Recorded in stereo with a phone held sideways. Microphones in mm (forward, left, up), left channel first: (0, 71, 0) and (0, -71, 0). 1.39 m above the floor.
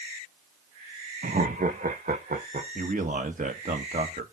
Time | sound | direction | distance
1.2 | laughter | 75° right (ahead or behind) | 0.6 m
2.8 | a man speaking | 70° right (ahead or behind) | 1.6 m